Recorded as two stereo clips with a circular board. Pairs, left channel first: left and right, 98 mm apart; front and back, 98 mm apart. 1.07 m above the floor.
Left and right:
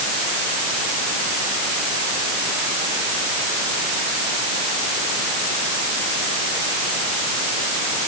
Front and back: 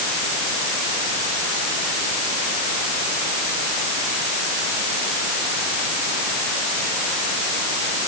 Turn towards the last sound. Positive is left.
No sound to turn to.